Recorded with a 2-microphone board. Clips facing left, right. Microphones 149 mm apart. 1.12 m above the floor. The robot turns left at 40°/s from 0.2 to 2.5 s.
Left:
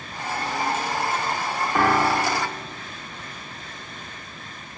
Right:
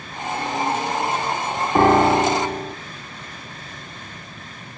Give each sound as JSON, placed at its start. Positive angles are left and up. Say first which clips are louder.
{"t": 1.8, "sound": "a piano", "louder": "right 7 dB", "side_deg": -30, "distance_m": 0.5}